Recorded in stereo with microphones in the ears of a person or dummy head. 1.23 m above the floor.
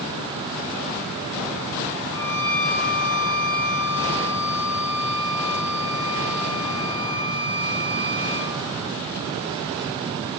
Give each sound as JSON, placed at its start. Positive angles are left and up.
{"t": 2.1, "sound": "a violin", "side_deg": -85, "distance_m": 3.5}